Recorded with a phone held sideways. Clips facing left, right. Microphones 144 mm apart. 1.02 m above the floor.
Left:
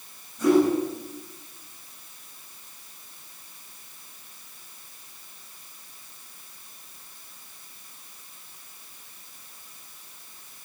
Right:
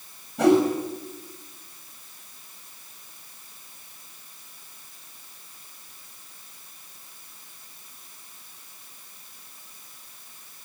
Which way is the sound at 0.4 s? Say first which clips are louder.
Right 1 dB; 75° right (ahead or behind).